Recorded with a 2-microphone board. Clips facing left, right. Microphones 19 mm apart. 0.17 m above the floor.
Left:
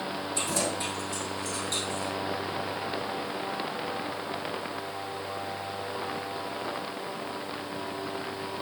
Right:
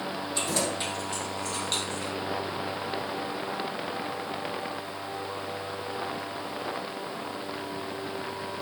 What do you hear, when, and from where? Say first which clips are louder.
0.3 s keys jangling: right 1 dB; 50° right (ahead or behind), 5 m; by 2.1 s 45° right (ahead or behind), 3 m